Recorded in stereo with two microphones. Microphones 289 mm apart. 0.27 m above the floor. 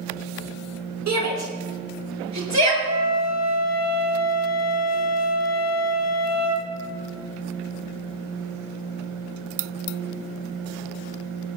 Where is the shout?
70° right (ahead or behind), 4 m; by 2.7 s 75° right (ahead or behind), 5.5 m.